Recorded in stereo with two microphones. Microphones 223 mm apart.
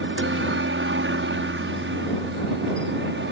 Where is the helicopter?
60° right (ahead or behind); by 3.3 s 55° right (ahead or behind).